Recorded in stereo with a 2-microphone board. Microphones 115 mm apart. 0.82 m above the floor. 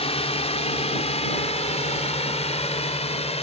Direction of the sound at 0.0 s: 60° left (ahead or behind).